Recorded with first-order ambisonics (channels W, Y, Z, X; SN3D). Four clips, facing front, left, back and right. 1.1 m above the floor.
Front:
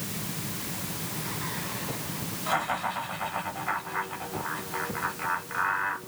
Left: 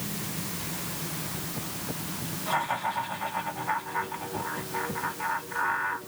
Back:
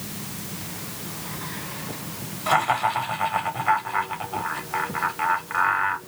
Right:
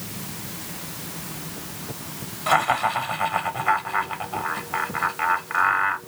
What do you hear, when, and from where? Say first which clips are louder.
2.5 s laughter: right 8 dB, back 8 dB; 125° right, 2 m